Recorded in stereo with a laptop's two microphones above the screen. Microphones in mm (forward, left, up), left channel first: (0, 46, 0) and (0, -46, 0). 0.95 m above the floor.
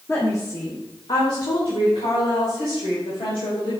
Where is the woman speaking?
30° left (ahead or behind), 2.5 m; by 3.7 s 85° left, 4.5 m.